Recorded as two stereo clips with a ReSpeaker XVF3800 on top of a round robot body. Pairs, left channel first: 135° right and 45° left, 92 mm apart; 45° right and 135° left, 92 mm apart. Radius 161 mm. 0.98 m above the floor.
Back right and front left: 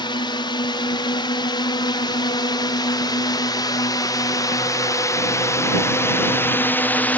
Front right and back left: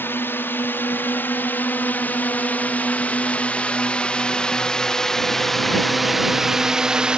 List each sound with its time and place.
0.0 s a drone: 110° right; by 7.2 s 165° right